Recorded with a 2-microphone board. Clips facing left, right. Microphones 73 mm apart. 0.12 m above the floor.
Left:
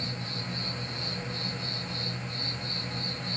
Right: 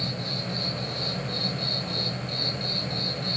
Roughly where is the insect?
Right.